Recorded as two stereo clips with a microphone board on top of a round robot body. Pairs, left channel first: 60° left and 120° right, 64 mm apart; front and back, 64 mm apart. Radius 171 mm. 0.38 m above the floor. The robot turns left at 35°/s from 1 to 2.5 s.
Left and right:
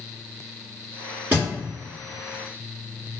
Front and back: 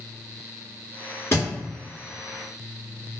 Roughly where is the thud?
Ahead right.